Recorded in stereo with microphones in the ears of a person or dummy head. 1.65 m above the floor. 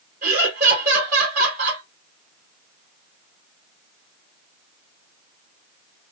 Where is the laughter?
45° right (ahead or behind), 2 m.